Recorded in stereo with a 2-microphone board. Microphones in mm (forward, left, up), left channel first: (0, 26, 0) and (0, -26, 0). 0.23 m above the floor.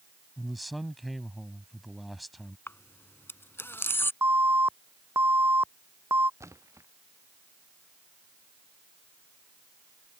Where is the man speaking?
Centre (ahead or behind).